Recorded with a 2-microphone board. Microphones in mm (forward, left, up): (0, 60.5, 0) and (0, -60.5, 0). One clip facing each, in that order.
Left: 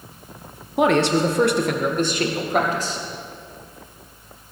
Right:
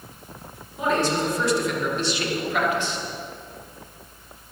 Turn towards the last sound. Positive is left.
turn(degrees=35)  # may be behind; listen again after turning